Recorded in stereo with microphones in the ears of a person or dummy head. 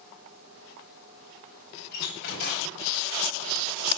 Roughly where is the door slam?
Left.